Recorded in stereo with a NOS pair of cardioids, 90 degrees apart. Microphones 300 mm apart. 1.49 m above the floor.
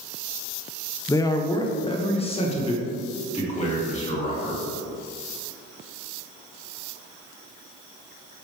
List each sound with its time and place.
1.1 s a man speaking: 10° left, 0.8 m; by 4.6 s 25° left, 3.5 m